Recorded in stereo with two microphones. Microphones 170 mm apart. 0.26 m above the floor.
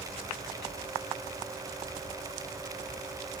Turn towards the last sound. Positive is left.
No sound to turn to.